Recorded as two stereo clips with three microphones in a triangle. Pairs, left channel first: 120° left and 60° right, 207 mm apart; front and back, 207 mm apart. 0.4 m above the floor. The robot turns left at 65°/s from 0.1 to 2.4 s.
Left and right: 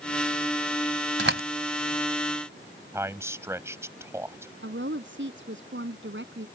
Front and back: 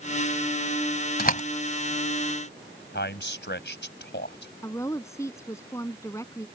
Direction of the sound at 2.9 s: 15° left.